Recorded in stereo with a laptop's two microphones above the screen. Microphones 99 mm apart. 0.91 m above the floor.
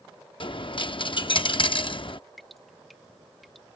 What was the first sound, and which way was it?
A dropped coin, 55° left (ahead or behind).